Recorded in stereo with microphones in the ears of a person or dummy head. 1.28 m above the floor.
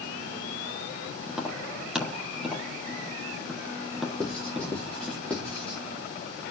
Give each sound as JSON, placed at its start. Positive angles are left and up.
{"t": 1.3, "sound": "tapping", "side_deg": 0, "distance_m": 1.3}
{"t": 4.2, "sound": "writing", "side_deg": 5, "distance_m": 3.0}